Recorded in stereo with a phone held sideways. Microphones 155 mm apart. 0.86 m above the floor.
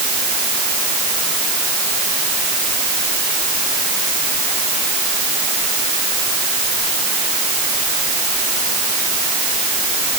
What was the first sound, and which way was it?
Only background noise.